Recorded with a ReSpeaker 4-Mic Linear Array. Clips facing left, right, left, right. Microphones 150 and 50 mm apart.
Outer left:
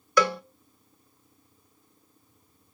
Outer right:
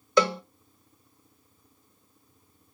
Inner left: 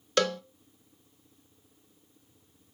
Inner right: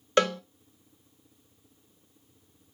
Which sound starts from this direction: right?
A cowbell, at 0.2 s.